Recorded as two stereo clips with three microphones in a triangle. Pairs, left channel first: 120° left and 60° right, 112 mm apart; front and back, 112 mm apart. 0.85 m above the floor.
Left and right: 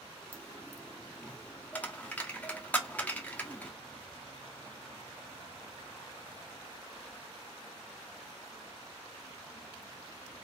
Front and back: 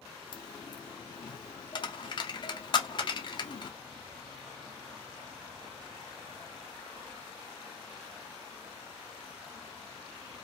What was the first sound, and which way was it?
A dropped coin, 45° left.